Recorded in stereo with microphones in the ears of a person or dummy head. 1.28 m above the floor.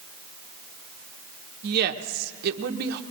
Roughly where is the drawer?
No drawer in this recording.